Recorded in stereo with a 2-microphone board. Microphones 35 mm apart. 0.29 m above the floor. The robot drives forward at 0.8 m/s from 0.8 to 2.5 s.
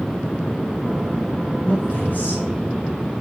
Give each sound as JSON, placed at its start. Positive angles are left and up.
{"t": 1.6, "sound": "a man speaking", "side_deg": 50, "distance_m": 4.0}